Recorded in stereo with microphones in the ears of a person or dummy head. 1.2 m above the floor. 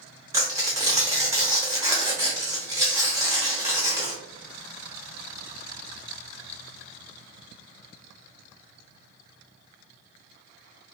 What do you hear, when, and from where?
0.3 s tearing paper: 15° right (ahead or behind), 0.8 m